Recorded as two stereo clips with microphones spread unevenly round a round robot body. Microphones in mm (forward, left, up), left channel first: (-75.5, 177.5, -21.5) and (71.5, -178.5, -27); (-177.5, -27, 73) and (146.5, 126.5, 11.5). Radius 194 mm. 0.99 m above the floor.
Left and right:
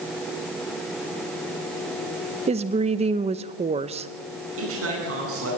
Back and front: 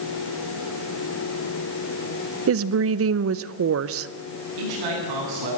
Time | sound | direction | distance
2.5 | a woman speaking | straight ahead | 0.7 m
4.6 | a man speaking | 10° right | 10 m